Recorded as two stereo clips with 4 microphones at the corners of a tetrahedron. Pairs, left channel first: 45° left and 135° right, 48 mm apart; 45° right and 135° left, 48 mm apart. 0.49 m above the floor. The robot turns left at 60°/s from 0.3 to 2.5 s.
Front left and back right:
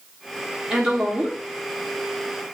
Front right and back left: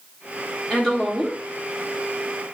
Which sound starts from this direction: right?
A woman speaking, at 0.7 s.